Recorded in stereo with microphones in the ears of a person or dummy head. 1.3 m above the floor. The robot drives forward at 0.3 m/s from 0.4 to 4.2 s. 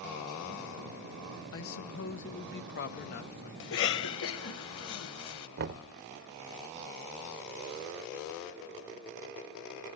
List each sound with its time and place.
1.5 s a man speaking: 65° left (ahead or behind), 0.8 m; by 3.5 s 45° left (ahead or behind), 1.0 m
3.6 s a cough: 65° left (ahead or behind), 1.4 m; by 5.5 s 70° left (ahead or behind), 1.4 m
5.6 s knocking: 50° right (ahead or behind), 0.6 m